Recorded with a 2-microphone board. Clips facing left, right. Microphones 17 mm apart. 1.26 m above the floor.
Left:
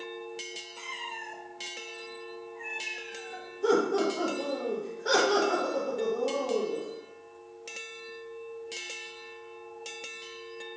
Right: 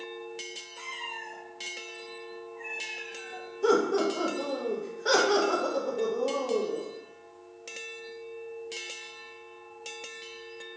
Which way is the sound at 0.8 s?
15° left (ahead or behind).